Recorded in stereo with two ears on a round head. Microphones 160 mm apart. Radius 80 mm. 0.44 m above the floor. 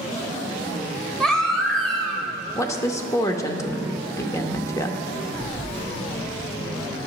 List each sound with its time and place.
1.2 s a baby crying: 5° left (ahead or behind), 1.7 m
2.5 s a woman speaking: 20° left (ahead or behind), 0.8 m
5.3 s a phone buzzing: 30° right (ahead or behind), 4 m